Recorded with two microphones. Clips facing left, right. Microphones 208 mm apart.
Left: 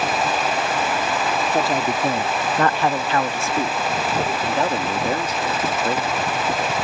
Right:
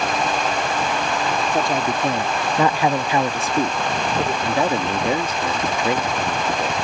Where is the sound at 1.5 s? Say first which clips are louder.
Left 1 dB; 5° left (ahead or behind); by 4.3 s 15° right (ahead or behind).